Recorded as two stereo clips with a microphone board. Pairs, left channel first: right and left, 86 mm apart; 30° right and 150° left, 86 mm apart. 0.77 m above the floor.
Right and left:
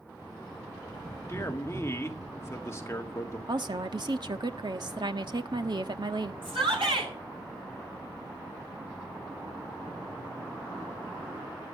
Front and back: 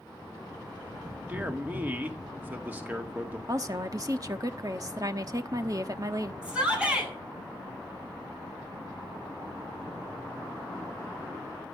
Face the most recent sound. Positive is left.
turn(degrees=75)